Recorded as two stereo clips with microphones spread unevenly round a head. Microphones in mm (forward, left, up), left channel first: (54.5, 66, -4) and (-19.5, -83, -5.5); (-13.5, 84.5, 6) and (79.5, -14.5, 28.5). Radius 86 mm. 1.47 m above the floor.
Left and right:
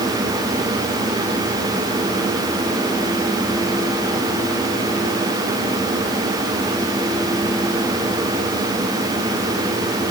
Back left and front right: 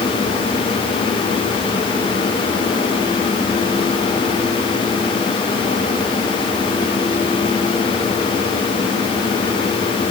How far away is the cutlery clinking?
No cutlery clinking in this recording.